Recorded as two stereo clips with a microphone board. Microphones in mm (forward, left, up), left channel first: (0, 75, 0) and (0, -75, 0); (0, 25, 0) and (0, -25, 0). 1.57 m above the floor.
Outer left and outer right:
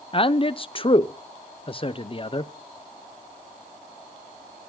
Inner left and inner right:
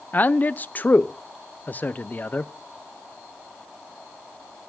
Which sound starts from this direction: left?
A man speaking, at 0.1 s.